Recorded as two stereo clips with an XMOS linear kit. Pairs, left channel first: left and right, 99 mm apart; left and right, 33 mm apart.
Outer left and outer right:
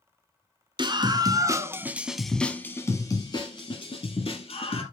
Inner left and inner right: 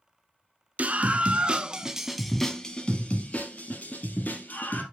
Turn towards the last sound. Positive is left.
turn(degrees=60)  # may be behind; listen again after turning